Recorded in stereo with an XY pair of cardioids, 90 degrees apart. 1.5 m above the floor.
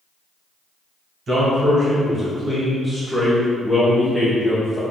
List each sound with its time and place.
1.3 s a man speaking: 50° right, 1.6 m; by 4.8 s 35° left, 1.2 m